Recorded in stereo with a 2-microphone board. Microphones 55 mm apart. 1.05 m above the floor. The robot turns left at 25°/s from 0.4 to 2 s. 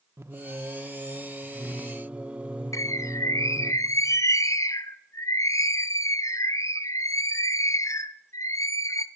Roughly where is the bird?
Left.